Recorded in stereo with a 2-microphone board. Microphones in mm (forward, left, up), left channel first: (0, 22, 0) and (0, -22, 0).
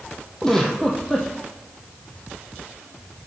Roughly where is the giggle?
Centre.